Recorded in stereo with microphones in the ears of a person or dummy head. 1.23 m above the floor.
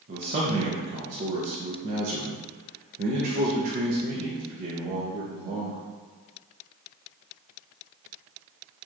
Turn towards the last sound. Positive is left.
turn(degrees=-45)  # may be behind; listen again after turning